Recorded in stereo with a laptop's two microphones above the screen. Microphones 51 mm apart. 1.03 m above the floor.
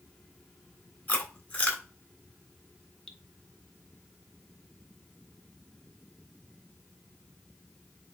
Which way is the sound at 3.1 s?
20° left (ahead or behind).